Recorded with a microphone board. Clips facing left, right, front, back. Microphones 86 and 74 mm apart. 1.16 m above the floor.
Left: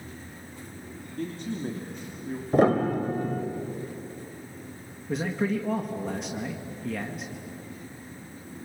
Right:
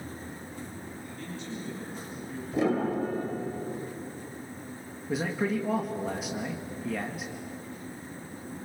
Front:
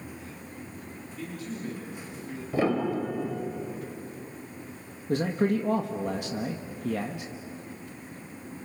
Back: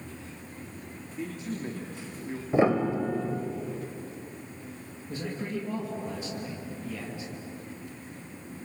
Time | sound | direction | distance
1.2 | a man speaking | 115° left | 3 m
2.5 | a piano | 115° left | 2.5 m
5.1 | a man speaking | 5° right | 1.5 m